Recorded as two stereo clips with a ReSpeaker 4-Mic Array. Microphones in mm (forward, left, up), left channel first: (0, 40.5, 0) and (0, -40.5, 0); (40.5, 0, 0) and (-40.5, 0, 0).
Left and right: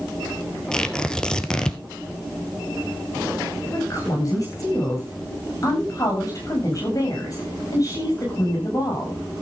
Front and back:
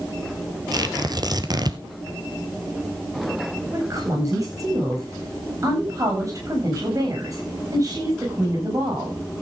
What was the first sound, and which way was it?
Tearing paper, 170° left.